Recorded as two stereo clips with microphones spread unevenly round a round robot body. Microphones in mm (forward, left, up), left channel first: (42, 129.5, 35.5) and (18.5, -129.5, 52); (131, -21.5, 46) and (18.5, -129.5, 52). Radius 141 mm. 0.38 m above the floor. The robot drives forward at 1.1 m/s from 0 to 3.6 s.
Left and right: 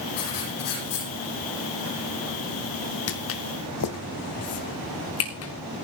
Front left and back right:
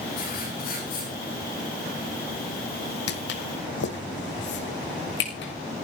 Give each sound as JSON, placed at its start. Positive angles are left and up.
{"t": 0.2, "sound": "writing", "azimuth_deg": 90, "distance_m": 10.0}
{"t": 3.1, "sound": "footsteps", "azimuth_deg": 35, "distance_m": 1.3}